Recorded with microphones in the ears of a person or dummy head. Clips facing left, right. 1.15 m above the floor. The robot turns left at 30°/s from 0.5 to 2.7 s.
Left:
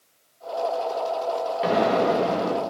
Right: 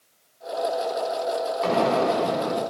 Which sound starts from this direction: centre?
An explosion, at 1.6 s.